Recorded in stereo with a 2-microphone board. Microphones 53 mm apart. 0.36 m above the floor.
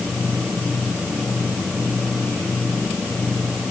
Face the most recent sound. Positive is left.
No sound to turn to.